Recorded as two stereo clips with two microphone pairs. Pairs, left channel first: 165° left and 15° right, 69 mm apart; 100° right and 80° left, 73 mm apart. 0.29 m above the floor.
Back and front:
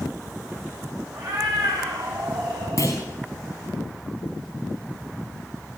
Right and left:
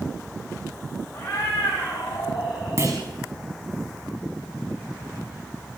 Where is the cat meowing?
30° right, 7.5 m; by 2.9 s 20° right, 9 m.